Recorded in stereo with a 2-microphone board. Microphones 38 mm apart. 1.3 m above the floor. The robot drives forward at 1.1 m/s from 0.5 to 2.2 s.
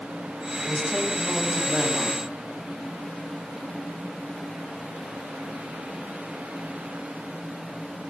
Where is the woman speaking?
15° left (ahead or behind), 6 m; by 2.2 s 10° left (ahead or behind), 7.5 m.